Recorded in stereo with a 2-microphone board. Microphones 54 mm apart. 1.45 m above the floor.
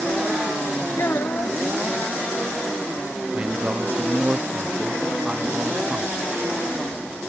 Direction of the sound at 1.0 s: 55° left (ahead or behind).